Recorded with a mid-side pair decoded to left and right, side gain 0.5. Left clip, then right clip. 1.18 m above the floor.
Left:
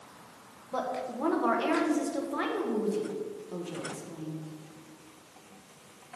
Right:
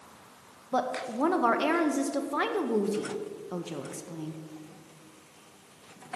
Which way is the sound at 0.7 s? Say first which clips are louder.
Right 3 dB; 40° right.